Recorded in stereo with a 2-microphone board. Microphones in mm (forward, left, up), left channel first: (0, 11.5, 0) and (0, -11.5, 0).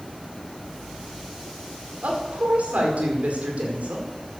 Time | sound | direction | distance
2.0 | a woman speaking | 75° right (ahead or behind) | 5 m